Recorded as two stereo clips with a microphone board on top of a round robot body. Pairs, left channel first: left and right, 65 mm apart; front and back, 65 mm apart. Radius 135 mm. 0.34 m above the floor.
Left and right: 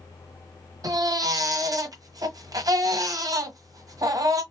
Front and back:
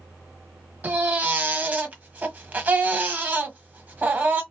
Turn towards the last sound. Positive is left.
turn(degrees=-115)